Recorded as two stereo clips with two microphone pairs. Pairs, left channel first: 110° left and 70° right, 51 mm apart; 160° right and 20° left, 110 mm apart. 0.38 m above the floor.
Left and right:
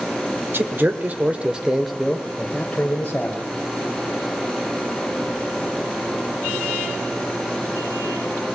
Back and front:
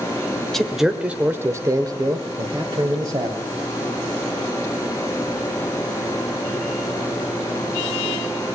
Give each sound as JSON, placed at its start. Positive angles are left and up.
{"t": 0.5, "sound": "a man speaking", "azimuth_deg": -75, "distance_m": 1.2}